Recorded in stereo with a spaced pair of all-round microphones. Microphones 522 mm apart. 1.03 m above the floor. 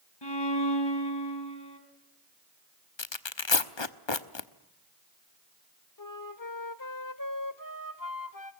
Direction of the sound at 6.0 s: 40° left (ahead or behind).